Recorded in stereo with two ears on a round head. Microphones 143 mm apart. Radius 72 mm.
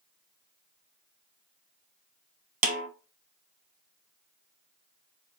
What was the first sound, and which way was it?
A snare drum, 50° right (ahead or behind).